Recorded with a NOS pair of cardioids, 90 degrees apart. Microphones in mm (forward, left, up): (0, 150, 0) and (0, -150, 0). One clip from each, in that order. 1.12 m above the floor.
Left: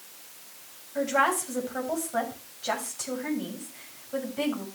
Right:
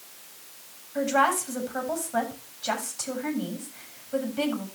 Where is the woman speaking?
15° right, 7.5 m.